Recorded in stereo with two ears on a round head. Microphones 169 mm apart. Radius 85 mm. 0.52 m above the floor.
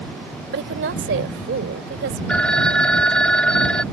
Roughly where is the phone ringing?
Centre.